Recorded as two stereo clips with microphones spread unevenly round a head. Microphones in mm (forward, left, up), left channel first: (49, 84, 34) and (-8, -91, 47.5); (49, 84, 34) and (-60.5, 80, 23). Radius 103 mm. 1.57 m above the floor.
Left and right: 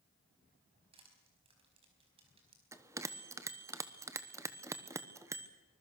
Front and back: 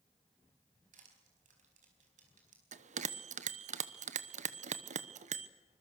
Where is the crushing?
170° right, 4.5 m.